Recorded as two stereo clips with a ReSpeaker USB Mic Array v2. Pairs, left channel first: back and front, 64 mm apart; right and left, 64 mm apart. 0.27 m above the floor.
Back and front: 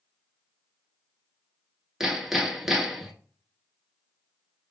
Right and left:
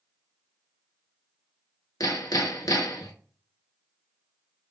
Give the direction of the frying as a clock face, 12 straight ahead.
No frying in this recording.